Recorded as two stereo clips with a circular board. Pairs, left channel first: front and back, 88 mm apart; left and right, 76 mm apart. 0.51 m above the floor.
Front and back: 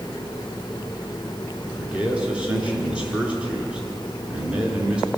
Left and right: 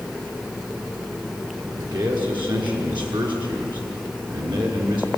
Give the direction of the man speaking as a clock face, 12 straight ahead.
3 o'clock.